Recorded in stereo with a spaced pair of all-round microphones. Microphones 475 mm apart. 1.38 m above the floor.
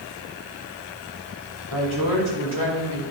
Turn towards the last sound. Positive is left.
turn(degrees=85)